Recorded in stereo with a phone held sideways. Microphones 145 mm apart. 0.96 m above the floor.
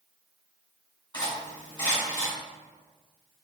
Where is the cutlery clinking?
35° left (ahead or behind), 1.8 m.